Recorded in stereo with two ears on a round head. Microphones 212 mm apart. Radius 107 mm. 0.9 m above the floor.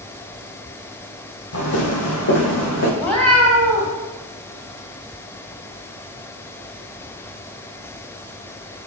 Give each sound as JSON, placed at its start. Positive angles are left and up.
{"t": 1.5, "sound": "footsteps", "side_deg": 55, "distance_m": 2.0}
{"t": 3.0, "sound": "a cat meowing", "side_deg": 5, "distance_m": 1.6}